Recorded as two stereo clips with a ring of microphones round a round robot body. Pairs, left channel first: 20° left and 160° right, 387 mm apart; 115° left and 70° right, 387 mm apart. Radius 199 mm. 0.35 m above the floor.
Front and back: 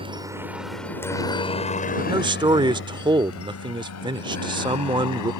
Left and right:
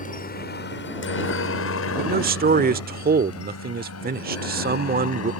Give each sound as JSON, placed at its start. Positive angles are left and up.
{"t": 0.0, "sound": "a helicopter", "azimuth_deg": 145}
{"t": 2.0, "sound": "a man speaking", "azimuth_deg": -95}